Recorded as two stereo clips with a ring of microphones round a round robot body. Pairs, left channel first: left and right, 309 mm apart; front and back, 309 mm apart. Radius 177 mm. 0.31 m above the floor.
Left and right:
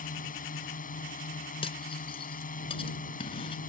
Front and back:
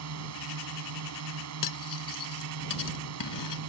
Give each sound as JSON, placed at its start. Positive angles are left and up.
{"t": 0.0, "sound": "a drone", "azimuth_deg": 150}
{"t": 1.6, "sound": "cutlery clinking", "azimuth_deg": 15}